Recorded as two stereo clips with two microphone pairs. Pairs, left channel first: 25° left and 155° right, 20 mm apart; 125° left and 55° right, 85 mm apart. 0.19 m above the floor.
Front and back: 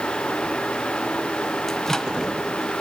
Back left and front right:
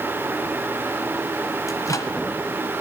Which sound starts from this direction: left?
A microwave, at 1.7 s.